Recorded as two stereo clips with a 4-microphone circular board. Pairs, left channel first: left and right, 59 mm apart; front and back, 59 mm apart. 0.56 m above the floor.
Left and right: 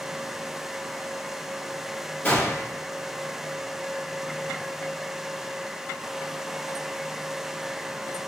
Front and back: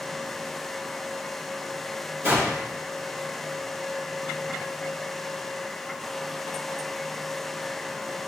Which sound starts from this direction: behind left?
A gunshot, at 2.2 s.